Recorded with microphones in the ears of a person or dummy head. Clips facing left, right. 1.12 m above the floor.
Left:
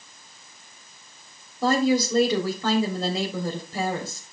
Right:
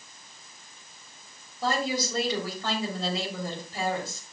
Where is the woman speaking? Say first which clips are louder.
Left 8 dB; 70° left (ahead or behind), 3.5 m.